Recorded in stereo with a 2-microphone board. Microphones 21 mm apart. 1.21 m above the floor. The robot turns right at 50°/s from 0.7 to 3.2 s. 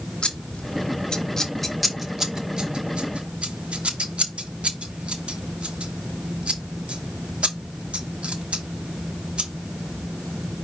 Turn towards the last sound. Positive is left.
turn(degrees=-70)  # may be behind; listen again after turning